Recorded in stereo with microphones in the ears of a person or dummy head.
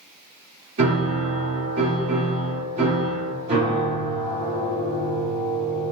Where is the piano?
35° right (ahead or behind), 1.7 m.